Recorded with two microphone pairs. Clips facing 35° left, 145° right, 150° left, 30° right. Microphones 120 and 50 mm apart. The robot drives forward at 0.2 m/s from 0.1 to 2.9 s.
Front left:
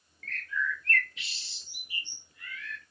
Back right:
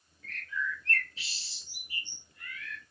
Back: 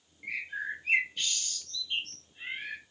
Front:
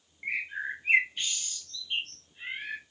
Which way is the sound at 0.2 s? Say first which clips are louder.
Front left 3 dB, front 2 dB; 75° right.